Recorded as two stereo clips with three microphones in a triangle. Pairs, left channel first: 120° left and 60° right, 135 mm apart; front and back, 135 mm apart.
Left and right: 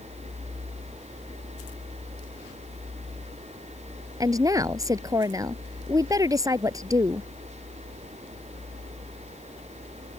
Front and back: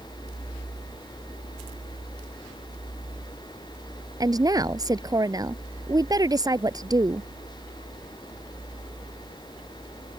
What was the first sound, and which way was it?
A woman speaking, 120° right.